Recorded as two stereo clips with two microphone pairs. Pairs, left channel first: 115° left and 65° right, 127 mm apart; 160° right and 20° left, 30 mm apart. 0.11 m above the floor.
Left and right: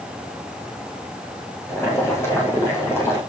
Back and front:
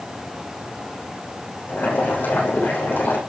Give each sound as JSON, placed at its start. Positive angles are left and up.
{"t": 1.7, "sound": "boiling", "azimuth_deg": -170, "distance_m": 9.0}